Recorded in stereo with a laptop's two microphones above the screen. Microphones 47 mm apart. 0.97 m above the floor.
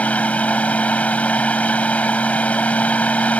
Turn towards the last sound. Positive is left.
turn(degrees=30)  # may be behind; listen again after turning